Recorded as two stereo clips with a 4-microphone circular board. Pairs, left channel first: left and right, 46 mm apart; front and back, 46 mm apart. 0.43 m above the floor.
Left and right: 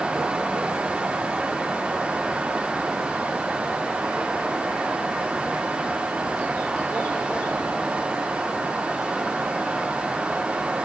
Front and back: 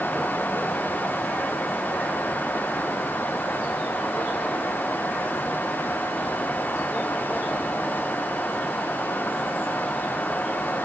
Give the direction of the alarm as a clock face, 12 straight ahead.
No alarm in this recording.